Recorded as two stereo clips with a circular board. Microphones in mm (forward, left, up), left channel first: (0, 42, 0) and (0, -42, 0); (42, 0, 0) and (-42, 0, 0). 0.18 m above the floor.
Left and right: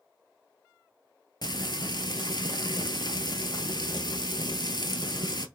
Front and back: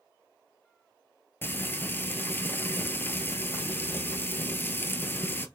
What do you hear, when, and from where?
1.4 s frying: 65° left, 0.7 m